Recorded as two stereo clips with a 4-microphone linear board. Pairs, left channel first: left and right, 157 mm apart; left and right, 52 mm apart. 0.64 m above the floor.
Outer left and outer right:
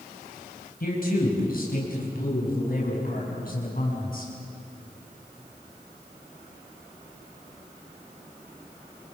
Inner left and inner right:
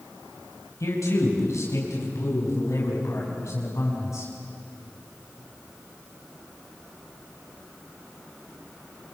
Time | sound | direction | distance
0.8 | a man speaking | 70° left (ahead or behind) | 4.5 m